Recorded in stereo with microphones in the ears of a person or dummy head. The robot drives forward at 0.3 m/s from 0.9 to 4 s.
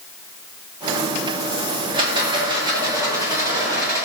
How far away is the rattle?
About 0.5 m.